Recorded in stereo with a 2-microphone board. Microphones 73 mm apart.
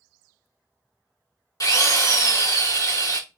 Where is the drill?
50° left (ahead or behind), 2 m.